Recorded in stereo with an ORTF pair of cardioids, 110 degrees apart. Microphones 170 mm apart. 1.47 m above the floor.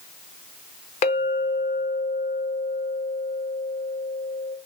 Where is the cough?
No cough in this recording.